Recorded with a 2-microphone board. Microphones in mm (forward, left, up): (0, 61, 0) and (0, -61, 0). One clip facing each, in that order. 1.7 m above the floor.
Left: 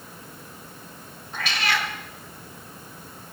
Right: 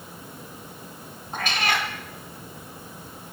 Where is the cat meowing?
50° right (ahead or behind), 1.5 m.